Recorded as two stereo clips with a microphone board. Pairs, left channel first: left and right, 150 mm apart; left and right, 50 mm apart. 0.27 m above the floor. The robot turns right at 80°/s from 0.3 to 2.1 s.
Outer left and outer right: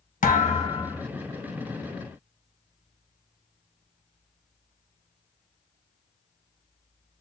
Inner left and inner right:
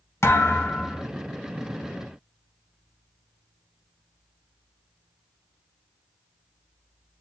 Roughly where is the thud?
Left.